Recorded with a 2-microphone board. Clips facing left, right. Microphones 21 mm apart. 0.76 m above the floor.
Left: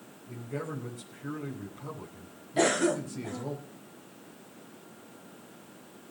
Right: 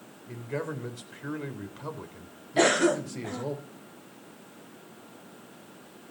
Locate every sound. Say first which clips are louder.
0.3 s a man speaking: right 3 dB; 65° right (ahead or behind), 4 m
2.6 s a cough: right 3 dB; 20° right (ahead or behind), 0.5 m